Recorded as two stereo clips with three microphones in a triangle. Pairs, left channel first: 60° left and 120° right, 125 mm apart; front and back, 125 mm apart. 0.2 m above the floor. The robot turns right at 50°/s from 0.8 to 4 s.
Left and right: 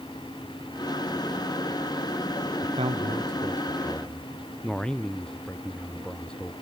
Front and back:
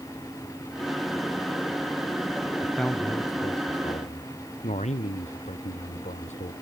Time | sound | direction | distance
2.6 | a man speaking | 90° right | ?